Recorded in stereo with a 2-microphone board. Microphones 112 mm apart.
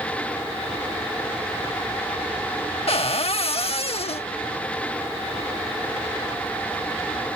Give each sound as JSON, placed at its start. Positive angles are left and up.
{"t": 2.9, "sound": "a cupboard door", "side_deg": 60}